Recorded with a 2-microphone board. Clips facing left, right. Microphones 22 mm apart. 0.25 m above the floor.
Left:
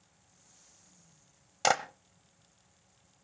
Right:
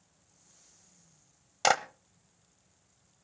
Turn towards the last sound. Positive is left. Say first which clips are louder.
# right 2 dB
turn(degrees=-10)  # may be behind; listen again after turning